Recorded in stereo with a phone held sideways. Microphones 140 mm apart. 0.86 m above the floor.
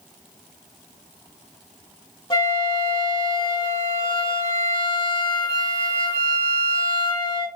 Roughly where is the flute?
Left.